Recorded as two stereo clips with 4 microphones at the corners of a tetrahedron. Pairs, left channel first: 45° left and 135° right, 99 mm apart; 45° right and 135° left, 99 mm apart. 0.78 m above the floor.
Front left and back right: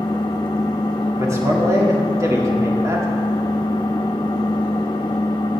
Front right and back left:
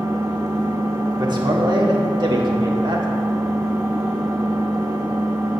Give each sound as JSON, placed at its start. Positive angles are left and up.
{"t": 0.0, "sound": "an engine running", "azimuth_deg": 85, "distance_m": 0.8}
{"t": 1.2, "sound": "a man speaking", "azimuth_deg": 170, "distance_m": 1.6}